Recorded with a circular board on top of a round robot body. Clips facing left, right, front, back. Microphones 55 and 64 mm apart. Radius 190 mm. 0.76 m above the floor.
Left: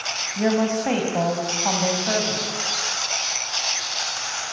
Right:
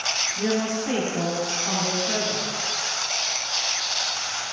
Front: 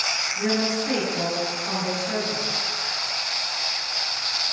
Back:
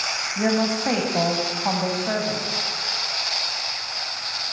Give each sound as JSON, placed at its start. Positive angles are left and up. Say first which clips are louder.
{"t": 0.4, "sound": "a woman speaking", "louder": "left 5 dB, back 3 dB", "azimuth_deg": 140, "distance_m": 5.5}